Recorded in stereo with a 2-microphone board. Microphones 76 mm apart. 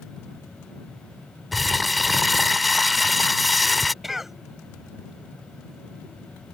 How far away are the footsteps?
I don't hear footsteps.